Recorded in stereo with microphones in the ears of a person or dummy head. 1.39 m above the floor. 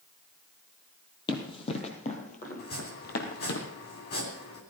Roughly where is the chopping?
Left.